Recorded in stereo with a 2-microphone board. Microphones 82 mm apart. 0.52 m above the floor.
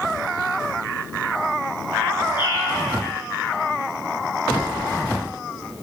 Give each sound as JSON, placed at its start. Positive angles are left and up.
{"t": 2.4, "sound": "a bird", "side_deg": 65, "distance_m": 7.0}